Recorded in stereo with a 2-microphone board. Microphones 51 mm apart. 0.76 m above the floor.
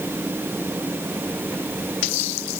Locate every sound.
Only background noise.